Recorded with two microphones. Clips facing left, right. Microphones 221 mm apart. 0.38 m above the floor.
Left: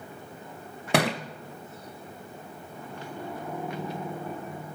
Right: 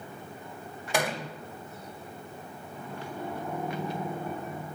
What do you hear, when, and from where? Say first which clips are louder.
0.9 s a thud: left 5 dB; 70° left (ahead or behind), 0.7 m